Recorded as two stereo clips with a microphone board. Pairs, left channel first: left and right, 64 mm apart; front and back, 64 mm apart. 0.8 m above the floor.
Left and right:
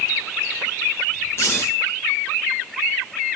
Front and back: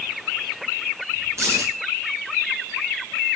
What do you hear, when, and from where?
1.4 s keys jangling: 135° left, 7 m